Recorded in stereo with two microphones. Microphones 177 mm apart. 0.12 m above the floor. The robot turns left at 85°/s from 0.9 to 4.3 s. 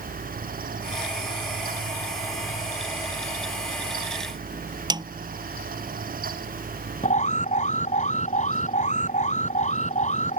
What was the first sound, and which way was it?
A snare drum, 25° right (ahead or behind).